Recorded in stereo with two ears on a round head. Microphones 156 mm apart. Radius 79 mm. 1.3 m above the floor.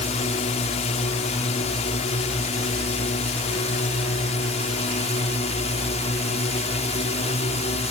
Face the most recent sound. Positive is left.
turn(degrees=40)  # may be behind; listen again after turning